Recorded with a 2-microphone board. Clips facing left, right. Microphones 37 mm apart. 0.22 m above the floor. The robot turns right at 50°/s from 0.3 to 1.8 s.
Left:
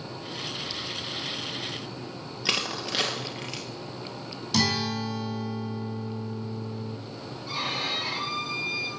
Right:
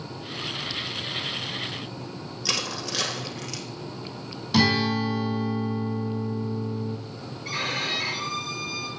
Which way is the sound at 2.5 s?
20° left (ahead or behind).